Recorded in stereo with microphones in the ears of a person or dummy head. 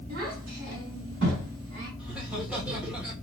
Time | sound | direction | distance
0.1 | a child speaking | 55° right (ahead or behind) | 3 m
2.0 | laughter | 10° right (ahead or behind) | 1.7 m